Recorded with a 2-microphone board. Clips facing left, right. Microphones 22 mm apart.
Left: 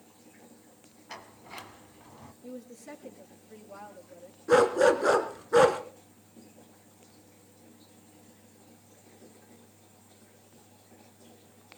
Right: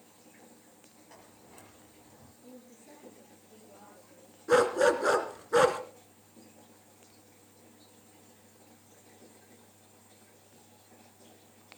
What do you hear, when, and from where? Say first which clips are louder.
1.1 s a sliding door: left 12 dB; 65° left (ahead or behind), 1.6 m
2.4 s a woman speaking: left 9 dB; 75° left (ahead or behind), 6.5 m
4.5 s a dog barking: left 3 dB; centre (ahead or behind), 1.9 m